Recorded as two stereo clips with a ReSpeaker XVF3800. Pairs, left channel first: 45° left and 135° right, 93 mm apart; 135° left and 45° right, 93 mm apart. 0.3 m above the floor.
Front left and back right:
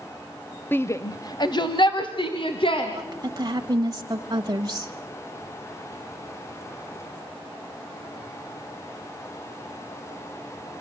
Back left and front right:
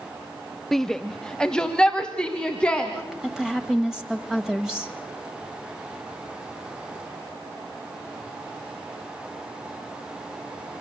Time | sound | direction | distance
0.7 | a shout | 50° left | 0.9 m
2.9 | a woman speaking | 125° right | 1.1 m